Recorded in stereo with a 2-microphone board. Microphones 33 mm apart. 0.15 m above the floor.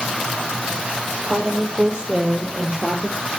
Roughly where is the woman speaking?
Right.